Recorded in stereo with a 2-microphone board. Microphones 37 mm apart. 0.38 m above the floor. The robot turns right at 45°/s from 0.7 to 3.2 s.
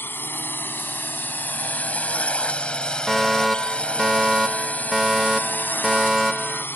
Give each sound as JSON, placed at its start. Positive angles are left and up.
{"t": 0.0, "sound": "a drone", "side_deg": 65}
{"t": 3.1, "sound": "a fire alarm", "side_deg": 0}